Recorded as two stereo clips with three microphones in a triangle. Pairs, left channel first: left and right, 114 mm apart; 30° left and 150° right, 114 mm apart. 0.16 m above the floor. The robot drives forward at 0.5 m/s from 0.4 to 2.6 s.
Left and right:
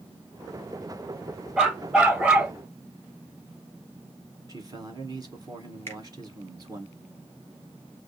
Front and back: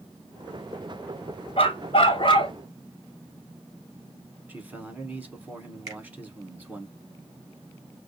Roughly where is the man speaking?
Right.